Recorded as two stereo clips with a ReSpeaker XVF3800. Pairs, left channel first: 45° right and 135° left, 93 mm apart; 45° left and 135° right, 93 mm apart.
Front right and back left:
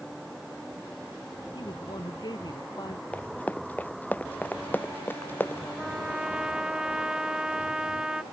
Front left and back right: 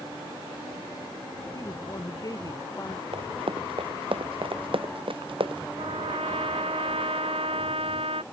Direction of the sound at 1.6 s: 5° right.